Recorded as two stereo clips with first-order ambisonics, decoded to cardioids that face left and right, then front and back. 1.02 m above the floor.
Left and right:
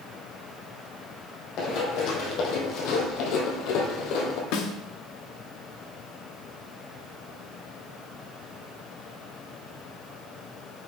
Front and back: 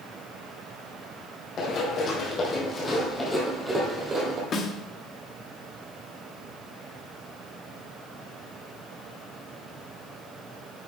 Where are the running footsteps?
55° left, 2.5 m; by 4.4 s 120° left, 2 m.